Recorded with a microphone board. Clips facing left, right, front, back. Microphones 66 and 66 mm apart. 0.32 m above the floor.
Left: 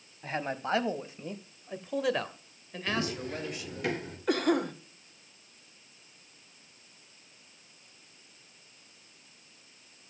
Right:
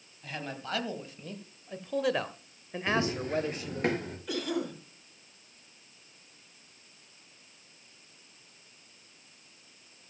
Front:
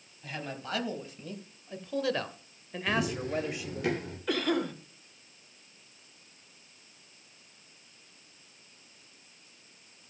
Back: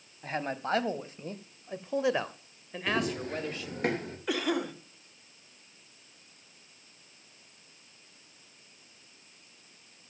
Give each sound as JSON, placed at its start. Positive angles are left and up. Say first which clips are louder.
{"t": 0.2, "sound": "a man speaking", "louder": "left 5 dB, back 6 dB", "azimuth_deg": 140, "distance_m": 1.7}
{"t": 2.9, "sound": "running footsteps", "louder": "right 3 dB, even", "azimuth_deg": -150, "distance_m": 5.5}
{"t": 4.3, "sound": "a cough", "louder": "left 6 dB, front 1 dB", "azimuth_deg": 100, "distance_m": 1.8}